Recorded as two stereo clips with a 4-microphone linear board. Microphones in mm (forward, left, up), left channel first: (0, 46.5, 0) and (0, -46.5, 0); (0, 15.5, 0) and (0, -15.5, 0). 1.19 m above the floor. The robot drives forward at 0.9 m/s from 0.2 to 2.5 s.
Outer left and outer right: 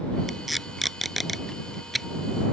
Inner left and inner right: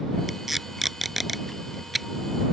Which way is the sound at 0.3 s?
Centre (ahead or behind).